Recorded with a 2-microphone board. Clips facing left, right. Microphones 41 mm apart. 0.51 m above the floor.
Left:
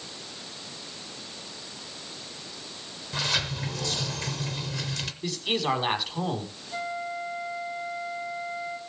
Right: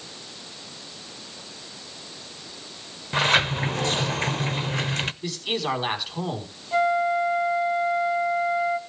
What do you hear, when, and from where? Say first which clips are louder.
3.1 s a sliding door: right 8 dB; 40° right (ahead or behind), 0.6 m
5.2 s a man speaking: even; centre (ahead or behind), 4.5 m
6.7 s a flute: right 12 dB; 40° right (ahead or behind), 1.9 m